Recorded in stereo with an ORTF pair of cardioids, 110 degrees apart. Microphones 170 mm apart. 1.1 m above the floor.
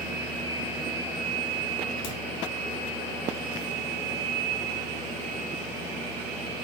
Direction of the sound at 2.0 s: 50° left.